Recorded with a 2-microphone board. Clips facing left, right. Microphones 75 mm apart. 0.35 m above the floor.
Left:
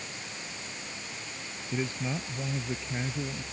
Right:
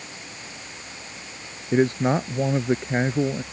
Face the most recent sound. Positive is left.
turn(degrees=-60)  # may be behind; listen again after turning